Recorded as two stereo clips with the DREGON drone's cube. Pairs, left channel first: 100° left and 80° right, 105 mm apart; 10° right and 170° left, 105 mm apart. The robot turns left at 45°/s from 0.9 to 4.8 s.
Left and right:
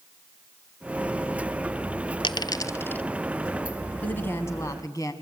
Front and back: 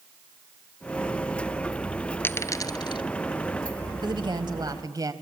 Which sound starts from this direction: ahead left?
A dropped coin, at 2.2 s.